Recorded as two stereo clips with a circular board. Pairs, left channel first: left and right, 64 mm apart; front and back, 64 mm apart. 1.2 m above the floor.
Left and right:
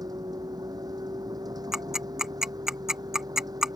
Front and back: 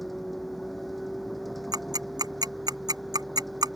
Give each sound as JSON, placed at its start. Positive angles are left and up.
{"t": 0.0, "sound": "a vehicle", "azimuth_deg": -90}
{"t": 1.7, "sound": "ticking", "azimuth_deg": -170}